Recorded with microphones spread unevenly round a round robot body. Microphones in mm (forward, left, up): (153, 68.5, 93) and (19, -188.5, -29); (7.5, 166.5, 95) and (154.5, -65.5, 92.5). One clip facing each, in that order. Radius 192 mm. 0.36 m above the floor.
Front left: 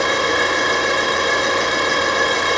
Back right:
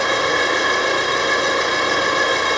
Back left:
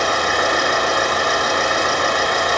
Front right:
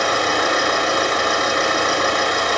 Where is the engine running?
10° left, 6.5 m.